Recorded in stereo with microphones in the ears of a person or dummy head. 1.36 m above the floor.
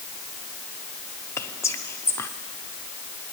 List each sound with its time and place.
1.4 s whispering: 15° left (ahead or behind), 0.7 m